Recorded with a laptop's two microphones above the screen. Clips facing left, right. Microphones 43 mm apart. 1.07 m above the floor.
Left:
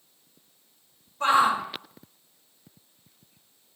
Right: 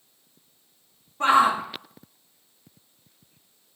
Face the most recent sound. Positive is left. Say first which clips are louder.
# right 2 dB
turn(degrees=-85)